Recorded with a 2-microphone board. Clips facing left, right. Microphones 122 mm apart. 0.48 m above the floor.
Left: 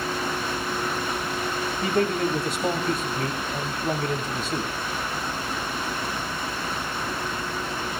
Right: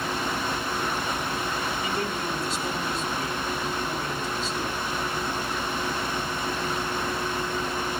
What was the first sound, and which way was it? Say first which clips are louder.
A man speaking: left 6 dB; 55° left (ahead or behind).